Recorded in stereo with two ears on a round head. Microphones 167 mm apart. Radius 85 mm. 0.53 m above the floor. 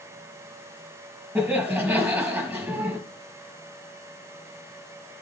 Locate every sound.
1.4 s laughter: 5° right (ahead or behind), 4.5 m